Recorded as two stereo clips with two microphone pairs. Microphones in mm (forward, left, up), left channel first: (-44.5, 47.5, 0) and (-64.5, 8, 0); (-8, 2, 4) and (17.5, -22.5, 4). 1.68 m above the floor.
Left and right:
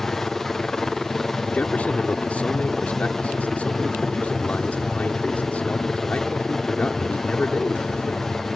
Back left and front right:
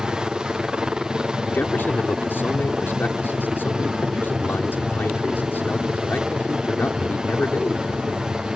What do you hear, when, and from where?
0.0 s a helicopter: 10° right
1.5 s a man speaking: 120° left